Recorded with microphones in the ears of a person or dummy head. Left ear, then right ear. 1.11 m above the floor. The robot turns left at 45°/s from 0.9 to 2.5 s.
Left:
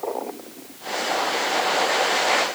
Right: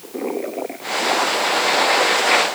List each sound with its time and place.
Only background noise.